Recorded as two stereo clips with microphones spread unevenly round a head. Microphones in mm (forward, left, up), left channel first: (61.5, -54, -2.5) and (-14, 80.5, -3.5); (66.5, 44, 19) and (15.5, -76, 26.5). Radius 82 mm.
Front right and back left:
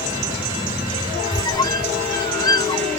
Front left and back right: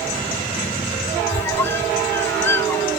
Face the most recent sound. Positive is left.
turn(degrees=-5)